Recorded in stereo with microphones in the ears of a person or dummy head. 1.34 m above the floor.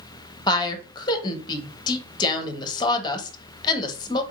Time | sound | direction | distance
0.5 | a woman speaking | 25° left (ahead or behind) | 1.0 m